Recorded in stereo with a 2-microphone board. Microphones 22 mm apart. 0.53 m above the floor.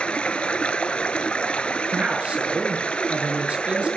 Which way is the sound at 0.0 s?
65° left (ahead or behind).